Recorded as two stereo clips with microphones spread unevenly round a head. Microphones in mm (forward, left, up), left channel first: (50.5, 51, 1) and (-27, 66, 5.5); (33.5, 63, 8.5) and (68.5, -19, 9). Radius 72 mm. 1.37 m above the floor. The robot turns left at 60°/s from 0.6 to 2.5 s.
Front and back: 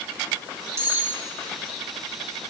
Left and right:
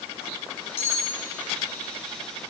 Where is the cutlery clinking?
115° left, 1.5 m; by 1.1 s 90° left, 1.5 m.